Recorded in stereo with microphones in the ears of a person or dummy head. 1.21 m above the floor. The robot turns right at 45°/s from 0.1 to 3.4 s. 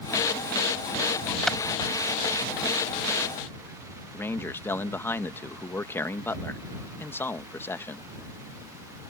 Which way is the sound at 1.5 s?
10° left (ahead or behind).